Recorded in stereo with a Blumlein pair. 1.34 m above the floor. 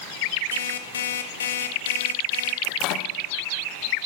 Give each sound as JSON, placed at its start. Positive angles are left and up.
{"t": 0.5, "sound": "an alarm clock", "azimuth_deg": 65, "distance_m": 1.5}
{"t": 2.6, "sound": "a microwave", "azimuth_deg": 40, "distance_m": 1.0}